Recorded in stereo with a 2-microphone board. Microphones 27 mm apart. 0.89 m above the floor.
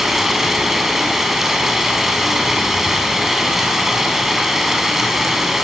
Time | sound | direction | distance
0.0 | running water | 10° right (ahead or behind) | 6.5 m